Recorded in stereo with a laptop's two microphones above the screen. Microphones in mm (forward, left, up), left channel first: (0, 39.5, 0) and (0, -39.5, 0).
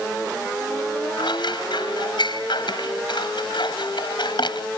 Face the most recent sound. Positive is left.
turn(degrees=75)  # may be behind; listen again after turning